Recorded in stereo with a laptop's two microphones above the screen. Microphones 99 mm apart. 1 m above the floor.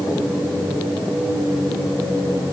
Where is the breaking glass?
I don't hear breaking glass.